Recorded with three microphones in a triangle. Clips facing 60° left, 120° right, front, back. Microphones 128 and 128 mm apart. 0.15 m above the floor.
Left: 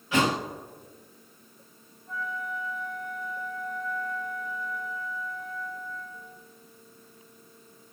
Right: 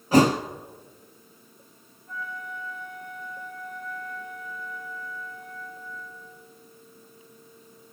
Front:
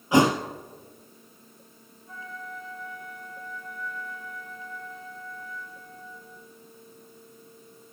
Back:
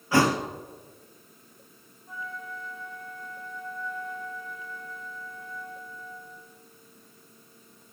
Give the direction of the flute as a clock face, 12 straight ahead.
8 o'clock.